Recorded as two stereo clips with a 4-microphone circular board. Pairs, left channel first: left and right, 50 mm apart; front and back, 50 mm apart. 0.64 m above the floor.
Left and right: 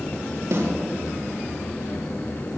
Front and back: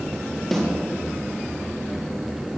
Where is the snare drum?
85° right, 5.5 m.